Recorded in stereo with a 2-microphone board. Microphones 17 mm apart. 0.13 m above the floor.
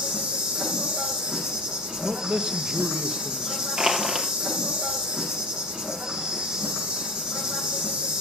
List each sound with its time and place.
0.0 s an insect: 75° right (ahead or behind), 7 m
2.0 s a man speaking: 55° right (ahead or behind), 2 m
3.8 s crushing: 45° right (ahead or behind), 3 m